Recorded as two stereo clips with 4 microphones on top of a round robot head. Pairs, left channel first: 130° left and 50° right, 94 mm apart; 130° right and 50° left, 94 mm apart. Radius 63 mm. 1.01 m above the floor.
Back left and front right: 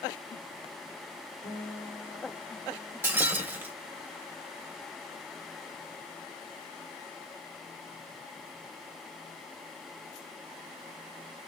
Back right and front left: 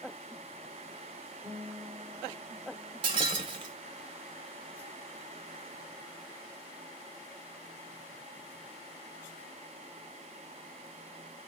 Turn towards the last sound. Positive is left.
turn(degrees=15)